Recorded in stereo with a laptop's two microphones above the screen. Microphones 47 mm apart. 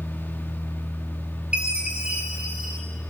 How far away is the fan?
About 1.7 m.